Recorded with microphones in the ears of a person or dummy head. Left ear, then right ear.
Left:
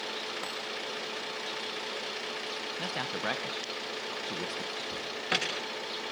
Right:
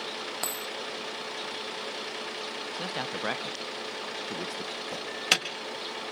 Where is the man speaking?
5° right (ahead or behind), 1.2 m.